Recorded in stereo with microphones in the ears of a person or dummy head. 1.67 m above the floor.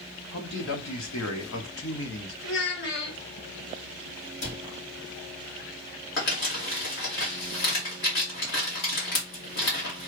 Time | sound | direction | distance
0.3 | a man speaking | 55° left (ahead or behind) | 1.3 m
2.4 | a child speaking | 60° left (ahead or behind) | 1.3 m
4.4 | a cupboard door | 70° left (ahead or behind) | 1.6 m
6.2 | crumpling | 50° left (ahead or behind) | 1.9 m